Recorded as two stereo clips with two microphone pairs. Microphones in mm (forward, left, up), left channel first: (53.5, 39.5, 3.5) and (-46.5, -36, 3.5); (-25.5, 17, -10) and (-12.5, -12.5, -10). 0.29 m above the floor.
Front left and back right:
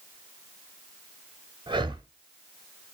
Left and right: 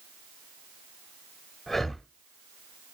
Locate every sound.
1.7 s breathing: 175° right, 0.6 m